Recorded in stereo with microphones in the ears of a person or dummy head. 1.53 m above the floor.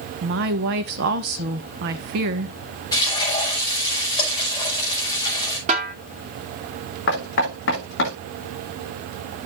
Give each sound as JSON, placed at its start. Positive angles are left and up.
{"t": 0.2, "sound": "a woman speaking", "side_deg": -60, "distance_m": 1.0}
{"t": 2.9, "sound": "frying", "side_deg": 20, "distance_m": 4.5}
{"t": 5.7, "sound": "a snare drum", "side_deg": -40, "distance_m": 1.6}
{"t": 7.1, "sound": "knocking", "side_deg": 55, "distance_m": 2.5}